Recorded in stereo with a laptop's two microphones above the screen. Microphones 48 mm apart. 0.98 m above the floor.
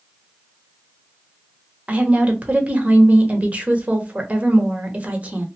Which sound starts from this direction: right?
A woman speaking, at 1.9 s.